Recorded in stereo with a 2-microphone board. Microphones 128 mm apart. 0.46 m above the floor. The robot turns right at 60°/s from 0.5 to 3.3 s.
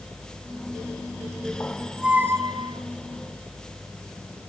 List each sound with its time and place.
1.6 s a squeak: 160° left, 0.8 m; by 2.8 s 125° right, 0.8 m